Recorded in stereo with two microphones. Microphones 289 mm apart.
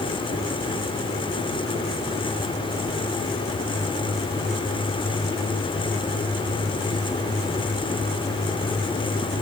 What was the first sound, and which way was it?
Only background noise.